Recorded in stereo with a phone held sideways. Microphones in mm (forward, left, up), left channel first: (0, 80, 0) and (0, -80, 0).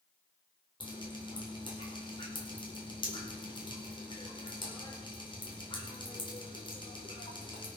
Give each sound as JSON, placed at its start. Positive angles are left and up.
{"t": 0.8, "sound": "dripping", "side_deg": 30, "distance_m": 4.5}